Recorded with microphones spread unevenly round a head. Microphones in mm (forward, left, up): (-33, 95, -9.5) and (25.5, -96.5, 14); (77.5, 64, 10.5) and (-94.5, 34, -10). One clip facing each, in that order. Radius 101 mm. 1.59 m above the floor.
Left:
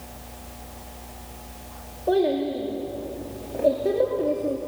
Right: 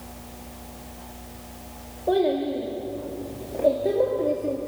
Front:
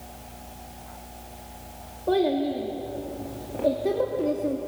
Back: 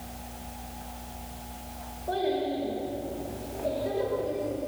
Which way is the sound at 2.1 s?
20° left.